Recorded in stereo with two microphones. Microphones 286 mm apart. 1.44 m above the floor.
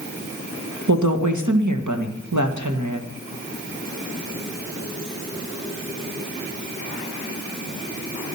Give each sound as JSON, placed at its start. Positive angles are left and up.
{"t": 0.9, "sound": "a woman speaking", "side_deg": -90, "distance_m": 1.7}